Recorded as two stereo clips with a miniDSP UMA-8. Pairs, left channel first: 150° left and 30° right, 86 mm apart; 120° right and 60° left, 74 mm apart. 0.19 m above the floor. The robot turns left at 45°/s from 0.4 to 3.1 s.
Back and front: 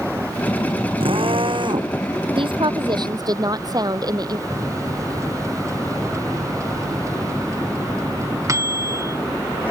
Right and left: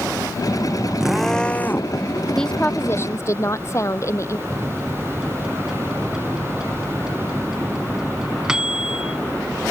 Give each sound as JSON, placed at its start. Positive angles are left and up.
{"t": 1.0, "sound": "a drill", "azimuth_deg": -25}
{"t": 2.4, "sound": "a woman speaking", "azimuth_deg": -35}
{"t": 4.5, "sound": "a microwave", "azimuth_deg": -15}